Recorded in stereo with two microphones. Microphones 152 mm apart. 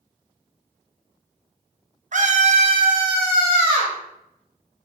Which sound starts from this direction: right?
A scream, at 2.1 s.